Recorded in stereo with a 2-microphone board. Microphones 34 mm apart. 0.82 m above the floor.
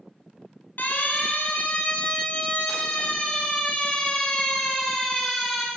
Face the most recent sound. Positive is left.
turn(degrees=10)  # may be behind; listen again after turning